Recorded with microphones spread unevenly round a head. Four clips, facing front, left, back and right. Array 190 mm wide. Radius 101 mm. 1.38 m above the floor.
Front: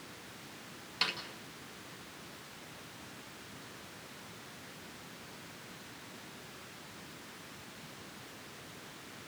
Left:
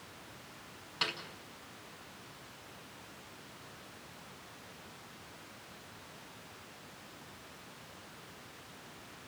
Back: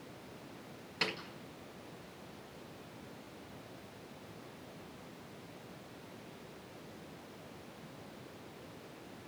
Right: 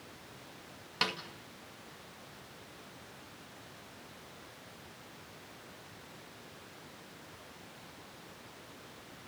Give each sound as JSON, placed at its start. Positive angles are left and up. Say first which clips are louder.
{"t": 1.0, "sound": "a snare drum", "louder": "right 4 dB, even", "azimuth_deg": -120, "distance_m": 2.5}